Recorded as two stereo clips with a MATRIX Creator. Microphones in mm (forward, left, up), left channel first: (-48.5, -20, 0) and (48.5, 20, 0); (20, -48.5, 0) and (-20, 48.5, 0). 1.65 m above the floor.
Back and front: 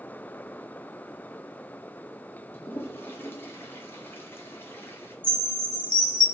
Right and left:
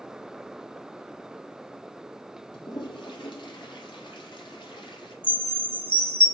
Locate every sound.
2.5 s a toilet flushing: 95° right, 1.1 m
5.2 s a chime: 110° right, 1.5 m